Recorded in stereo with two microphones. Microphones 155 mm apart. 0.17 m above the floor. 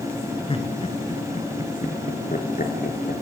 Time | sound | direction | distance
0.5 | laughter | 35° left (ahead or behind) | 2.5 m